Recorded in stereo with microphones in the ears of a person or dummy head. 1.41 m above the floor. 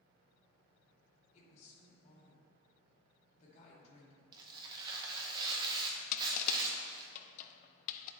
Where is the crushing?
50° left (ahead or behind), 0.5 m.